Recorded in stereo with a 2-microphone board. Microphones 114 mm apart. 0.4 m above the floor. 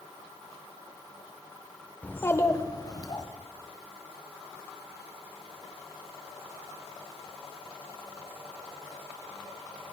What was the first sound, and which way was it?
A child speaking, 10° left (ahead or behind).